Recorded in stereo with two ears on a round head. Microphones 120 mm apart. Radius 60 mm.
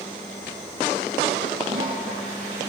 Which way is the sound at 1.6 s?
60° right (ahead or behind).